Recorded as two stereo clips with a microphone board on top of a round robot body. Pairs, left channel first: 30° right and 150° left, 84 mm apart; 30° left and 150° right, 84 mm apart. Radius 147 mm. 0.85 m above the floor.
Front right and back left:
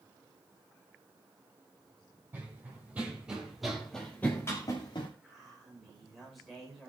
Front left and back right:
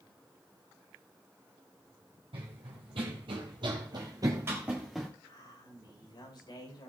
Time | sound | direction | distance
2.3 | running footsteps | 145° right | 2.5 m
5.2 | a man speaking | 60° left | 5 m